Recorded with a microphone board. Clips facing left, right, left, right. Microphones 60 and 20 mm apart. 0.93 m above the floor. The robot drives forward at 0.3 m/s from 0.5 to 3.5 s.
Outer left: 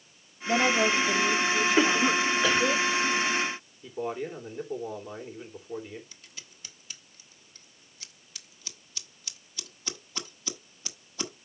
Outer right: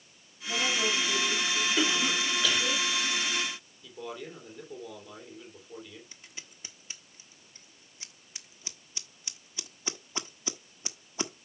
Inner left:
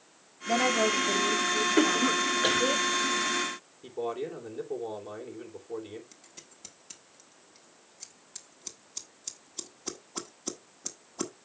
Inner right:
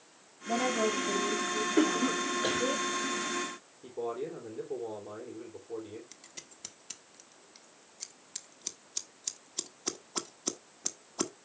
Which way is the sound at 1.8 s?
35° left (ahead or behind).